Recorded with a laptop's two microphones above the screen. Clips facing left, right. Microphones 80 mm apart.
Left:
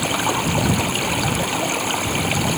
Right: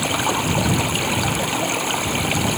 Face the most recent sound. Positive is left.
turn(degrees=0)  # may be behind; listen again after turning